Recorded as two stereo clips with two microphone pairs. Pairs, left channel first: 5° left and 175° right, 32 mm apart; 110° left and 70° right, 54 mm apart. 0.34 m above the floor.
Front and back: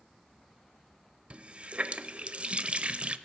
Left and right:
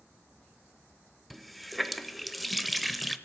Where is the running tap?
155° right, 0.6 m.